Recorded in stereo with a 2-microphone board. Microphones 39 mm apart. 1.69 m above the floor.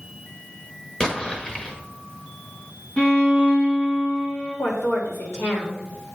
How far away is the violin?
About 2.5 m.